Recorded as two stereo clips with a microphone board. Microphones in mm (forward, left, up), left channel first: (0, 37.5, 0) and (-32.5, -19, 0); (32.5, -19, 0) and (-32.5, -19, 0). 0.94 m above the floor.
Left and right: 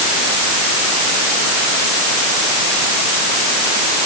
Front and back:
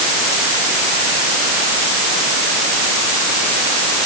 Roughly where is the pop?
I don't hear a pop.